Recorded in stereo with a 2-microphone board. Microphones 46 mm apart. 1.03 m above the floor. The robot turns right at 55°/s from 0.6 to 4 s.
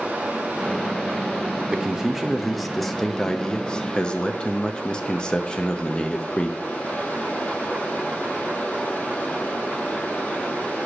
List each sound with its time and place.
0.0 s running water: 145° right, 3 m; by 10.8 s 45° left, 3 m
1.7 s a man speaking: 15° right (ahead or behind), 0.6 m; by 6.6 s 20° left (ahead or behind), 0.6 m